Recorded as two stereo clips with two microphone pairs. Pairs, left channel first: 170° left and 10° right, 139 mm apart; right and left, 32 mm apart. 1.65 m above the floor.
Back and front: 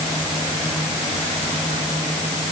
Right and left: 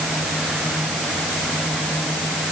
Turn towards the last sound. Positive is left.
No sound to turn to.